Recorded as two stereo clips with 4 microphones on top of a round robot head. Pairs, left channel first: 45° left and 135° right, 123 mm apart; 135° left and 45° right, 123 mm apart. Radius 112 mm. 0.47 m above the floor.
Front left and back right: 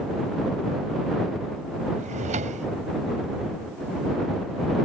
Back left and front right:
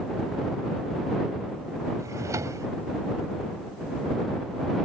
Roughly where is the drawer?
Right.